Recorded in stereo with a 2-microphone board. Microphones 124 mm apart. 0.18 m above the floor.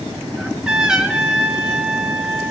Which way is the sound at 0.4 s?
5° right (ahead or behind).